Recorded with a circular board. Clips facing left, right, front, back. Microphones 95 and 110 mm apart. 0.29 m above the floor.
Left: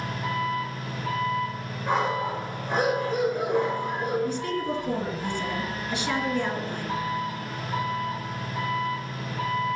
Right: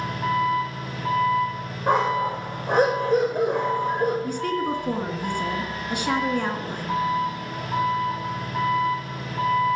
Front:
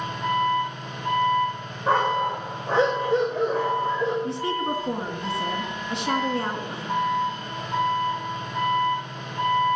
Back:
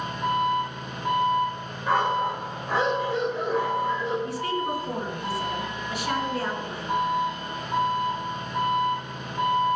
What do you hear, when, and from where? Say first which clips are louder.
0.0 s an engine running: right 5 dB, front 1 dB; 100° right, 7 m
1.9 s a dog barking: right 4 dB, front 2 dB; 60° right, 6.5 m
4.2 s a woman speaking: right 3 dB, front 1 dB; 60° right, 3 m